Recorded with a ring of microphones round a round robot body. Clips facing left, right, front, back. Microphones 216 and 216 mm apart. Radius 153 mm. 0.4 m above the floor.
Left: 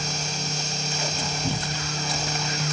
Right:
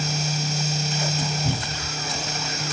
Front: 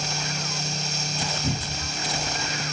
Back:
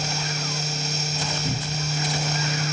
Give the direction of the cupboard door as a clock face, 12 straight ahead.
12 o'clock.